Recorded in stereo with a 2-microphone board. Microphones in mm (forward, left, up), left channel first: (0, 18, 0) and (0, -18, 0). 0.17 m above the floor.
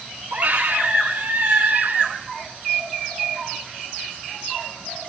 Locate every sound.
0.3 s a scream: 50° right (ahead or behind), 8 m